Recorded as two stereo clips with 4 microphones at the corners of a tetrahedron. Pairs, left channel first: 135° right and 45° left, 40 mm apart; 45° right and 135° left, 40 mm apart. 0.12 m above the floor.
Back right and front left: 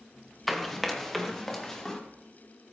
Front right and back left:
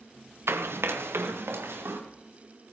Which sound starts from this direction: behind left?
Running footsteps, at 0.5 s.